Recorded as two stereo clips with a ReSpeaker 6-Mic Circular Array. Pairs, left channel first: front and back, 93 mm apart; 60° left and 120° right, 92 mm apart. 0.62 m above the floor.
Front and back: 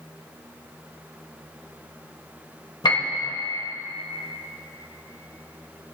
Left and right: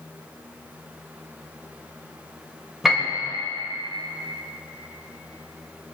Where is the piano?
30° right, 2 m.